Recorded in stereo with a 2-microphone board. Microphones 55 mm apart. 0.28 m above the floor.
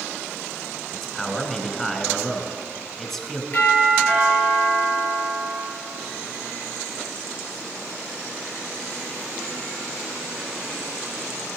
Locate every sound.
0.9 s a man speaking: 5° left (ahead or behind), 2 m
3.5 s a doorbell: 35° left (ahead or behind), 6.5 m